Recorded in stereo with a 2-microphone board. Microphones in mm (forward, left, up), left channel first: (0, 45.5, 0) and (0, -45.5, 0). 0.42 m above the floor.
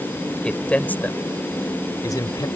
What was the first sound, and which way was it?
A man speaking, 10° left (ahead or behind).